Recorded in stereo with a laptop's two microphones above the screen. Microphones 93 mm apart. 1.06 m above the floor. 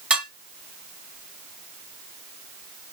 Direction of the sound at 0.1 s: 10° right (ahead or behind).